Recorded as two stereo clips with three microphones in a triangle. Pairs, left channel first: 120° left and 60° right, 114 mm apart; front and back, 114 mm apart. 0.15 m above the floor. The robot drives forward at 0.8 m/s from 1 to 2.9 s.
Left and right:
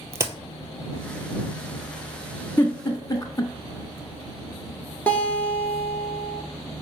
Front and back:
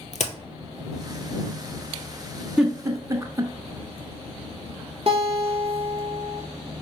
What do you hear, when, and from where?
0.1 s a crack: 5° left, 0.6 m
2.6 s a giggle: 105° left, 0.6 m; by 3.5 s 145° left, 0.7 m
5.1 s a guitar: 170° right, 0.7 m